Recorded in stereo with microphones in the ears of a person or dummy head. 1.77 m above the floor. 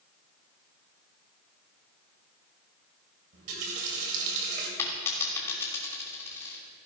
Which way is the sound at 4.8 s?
20° left (ahead or behind).